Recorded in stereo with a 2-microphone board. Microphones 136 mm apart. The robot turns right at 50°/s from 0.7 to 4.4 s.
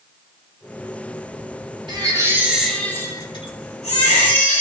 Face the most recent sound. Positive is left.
turn(degrees=90)